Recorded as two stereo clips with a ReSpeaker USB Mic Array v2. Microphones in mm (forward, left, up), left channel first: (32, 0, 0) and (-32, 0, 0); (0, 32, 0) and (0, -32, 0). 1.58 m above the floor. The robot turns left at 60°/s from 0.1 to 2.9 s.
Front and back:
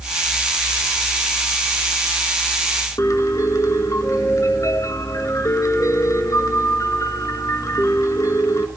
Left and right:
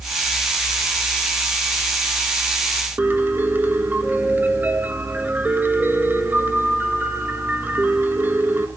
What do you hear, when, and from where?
3.0 s a piano: 35° right, 2 m